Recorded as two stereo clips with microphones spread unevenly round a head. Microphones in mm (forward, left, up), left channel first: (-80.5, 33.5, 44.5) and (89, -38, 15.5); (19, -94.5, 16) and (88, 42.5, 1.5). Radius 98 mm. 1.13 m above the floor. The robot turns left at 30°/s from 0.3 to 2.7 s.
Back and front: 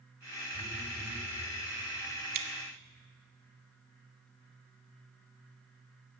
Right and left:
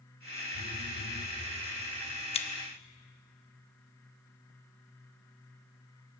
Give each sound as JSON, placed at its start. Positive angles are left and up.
{"t": 0.5, "sound": "a phone buzzing", "azimuth_deg": -90, "distance_m": 3.0}
{"t": 2.3, "sound": "scissors", "azimuth_deg": -65, "distance_m": 1.3}